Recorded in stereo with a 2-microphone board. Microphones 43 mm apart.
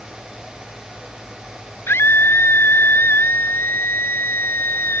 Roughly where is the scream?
Left.